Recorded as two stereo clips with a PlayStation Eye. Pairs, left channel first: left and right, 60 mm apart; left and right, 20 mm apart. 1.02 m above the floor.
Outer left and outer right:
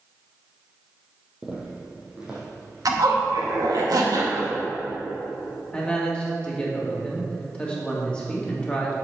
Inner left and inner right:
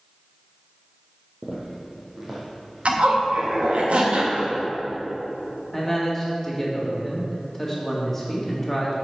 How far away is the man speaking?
About 1.8 m.